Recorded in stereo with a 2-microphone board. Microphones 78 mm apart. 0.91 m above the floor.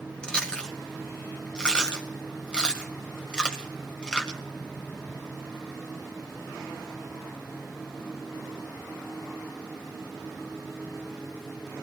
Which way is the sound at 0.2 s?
10° left (ahead or behind).